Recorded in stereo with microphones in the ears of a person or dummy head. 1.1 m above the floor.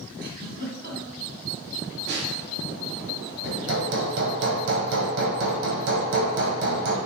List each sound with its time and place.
0.2 s a giggle: 60° right (ahead or behind), 2.5 m
2.1 s a snare drum: 60° right (ahead or behind), 2.5 m
3.4 s hammering: 70° right (ahead or behind), 2 m